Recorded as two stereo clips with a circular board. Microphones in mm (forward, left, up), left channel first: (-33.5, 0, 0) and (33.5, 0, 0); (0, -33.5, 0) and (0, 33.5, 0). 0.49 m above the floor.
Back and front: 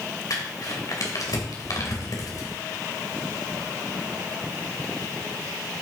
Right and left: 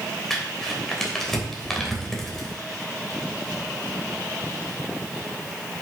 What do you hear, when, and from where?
0.3 s crumpling: 175° right, 2.5 m